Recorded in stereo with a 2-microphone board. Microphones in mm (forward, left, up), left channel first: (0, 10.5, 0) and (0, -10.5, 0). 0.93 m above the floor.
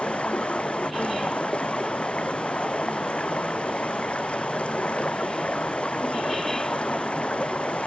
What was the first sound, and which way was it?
Running water, 80° left.